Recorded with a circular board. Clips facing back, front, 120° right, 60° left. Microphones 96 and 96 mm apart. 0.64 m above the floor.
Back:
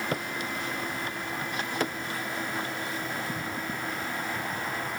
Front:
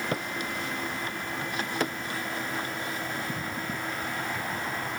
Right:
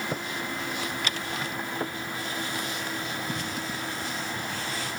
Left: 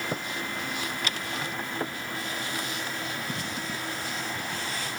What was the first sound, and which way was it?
Only background noise.